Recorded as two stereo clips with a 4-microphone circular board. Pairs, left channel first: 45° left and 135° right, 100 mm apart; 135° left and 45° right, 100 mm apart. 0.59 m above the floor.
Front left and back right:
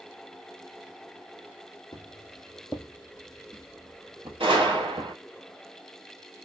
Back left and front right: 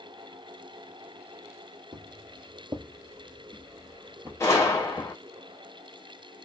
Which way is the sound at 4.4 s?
165° right.